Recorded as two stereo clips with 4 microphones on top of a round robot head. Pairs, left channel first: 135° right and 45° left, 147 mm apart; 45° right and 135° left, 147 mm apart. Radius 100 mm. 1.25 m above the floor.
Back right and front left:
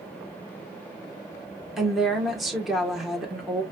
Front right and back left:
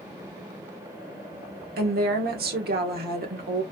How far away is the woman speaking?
About 1.2 m.